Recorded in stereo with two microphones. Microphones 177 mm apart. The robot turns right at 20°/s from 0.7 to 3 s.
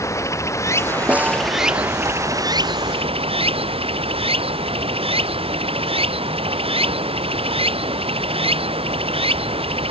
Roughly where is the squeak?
I don't hear a squeak.